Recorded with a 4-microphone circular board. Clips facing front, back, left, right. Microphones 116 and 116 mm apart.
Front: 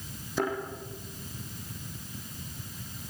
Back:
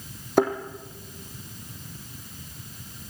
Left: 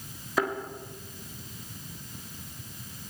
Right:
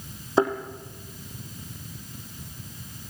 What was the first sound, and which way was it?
A thud, 150° right.